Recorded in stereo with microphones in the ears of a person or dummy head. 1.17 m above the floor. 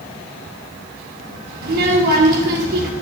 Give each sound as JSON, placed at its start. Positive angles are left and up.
{"t": 1.6, "sound": "a child speaking", "side_deg": -60, "distance_m": 1.6}